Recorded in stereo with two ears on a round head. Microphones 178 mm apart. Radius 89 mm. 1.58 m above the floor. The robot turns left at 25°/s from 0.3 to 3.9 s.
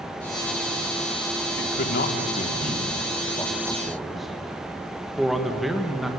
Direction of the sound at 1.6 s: 55° left (ahead or behind).